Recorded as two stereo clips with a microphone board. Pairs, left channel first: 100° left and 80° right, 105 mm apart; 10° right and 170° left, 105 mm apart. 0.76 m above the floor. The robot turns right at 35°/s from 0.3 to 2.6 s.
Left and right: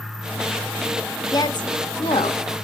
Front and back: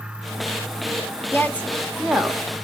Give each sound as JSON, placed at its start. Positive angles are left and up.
{"t": 1.3, "sound": "a woman speaking", "azimuth_deg": 55, "distance_m": 1.1}